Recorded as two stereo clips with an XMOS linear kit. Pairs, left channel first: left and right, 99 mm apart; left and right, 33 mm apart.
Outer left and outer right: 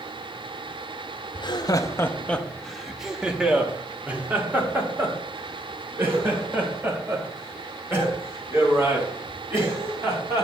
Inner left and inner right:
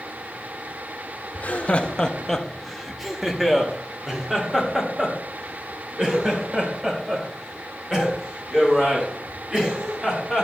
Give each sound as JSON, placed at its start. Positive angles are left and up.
{"t": 1.4, "sound": "laughter", "side_deg": 50, "distance_m": 0.5}